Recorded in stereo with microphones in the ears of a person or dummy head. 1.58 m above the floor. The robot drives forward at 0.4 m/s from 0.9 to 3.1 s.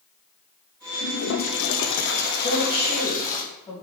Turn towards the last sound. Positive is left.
turn(degrees=20)  # may be behind; listen again after turning